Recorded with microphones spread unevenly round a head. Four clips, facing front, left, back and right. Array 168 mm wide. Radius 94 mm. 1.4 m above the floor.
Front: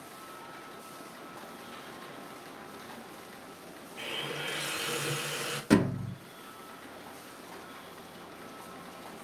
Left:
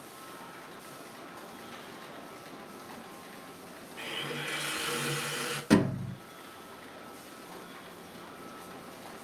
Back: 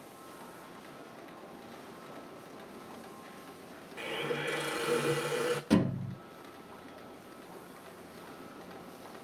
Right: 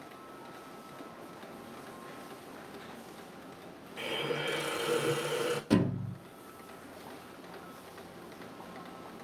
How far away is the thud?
About 0.9 m.